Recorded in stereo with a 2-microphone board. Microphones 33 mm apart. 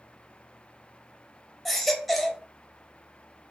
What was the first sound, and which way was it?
A baby crying, centre (ahead or behind).